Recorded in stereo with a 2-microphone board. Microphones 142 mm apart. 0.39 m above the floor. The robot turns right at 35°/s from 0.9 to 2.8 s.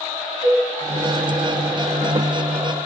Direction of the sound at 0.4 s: 70° right (ahead or behind).